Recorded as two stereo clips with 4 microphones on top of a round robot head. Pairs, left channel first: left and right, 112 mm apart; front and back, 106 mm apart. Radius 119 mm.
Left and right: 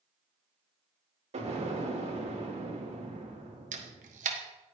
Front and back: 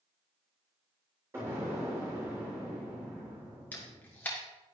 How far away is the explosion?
About 3.5 m.